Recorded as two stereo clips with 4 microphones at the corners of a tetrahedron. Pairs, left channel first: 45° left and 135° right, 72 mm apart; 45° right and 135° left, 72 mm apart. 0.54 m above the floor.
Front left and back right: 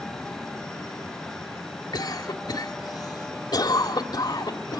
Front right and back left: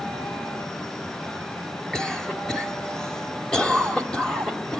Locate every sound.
1.9 s a cough: 35° left, 2 m